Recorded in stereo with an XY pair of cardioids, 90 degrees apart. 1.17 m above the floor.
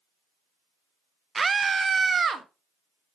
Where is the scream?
35° right, 0.6 m; by 2.5 s 45° right, 1.4 m.